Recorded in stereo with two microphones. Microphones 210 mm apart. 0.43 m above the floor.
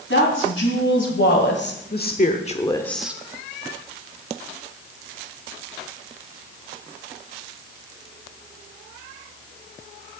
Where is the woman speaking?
70° left (ahead or behind), 2.5 m; by 3.2 s 15° right (ahead or behind), 0.8 m.